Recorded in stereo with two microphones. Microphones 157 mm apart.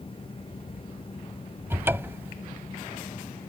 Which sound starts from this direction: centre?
A cupboard door, at 1.7 s.